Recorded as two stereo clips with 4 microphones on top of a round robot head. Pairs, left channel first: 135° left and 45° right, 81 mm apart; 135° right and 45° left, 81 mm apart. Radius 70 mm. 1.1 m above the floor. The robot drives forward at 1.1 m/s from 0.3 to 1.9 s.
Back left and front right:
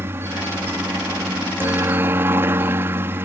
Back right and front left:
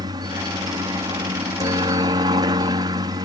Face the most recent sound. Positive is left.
turn(degrees=15)